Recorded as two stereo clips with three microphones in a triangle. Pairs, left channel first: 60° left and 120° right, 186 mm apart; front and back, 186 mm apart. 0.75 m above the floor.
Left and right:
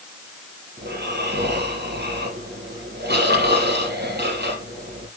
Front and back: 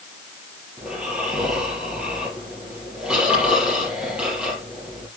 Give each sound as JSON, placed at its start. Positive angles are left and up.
{"t": 0.8, "sound": "snoring", "azimuth_deg": -95, "distance_m": 7.0}